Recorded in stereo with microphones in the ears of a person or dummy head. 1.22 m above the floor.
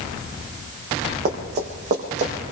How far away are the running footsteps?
About 3 m.